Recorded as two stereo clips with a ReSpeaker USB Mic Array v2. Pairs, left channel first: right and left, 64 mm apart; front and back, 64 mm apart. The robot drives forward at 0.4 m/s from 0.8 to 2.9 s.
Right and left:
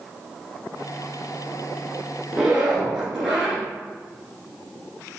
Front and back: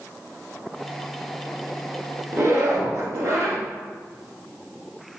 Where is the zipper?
165° left, 1.1 m; by 3.6 s 170° left, 1.2 m.